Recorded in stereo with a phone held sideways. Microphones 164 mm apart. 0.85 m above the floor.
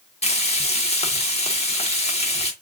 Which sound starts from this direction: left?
Frying, at 0.2 s.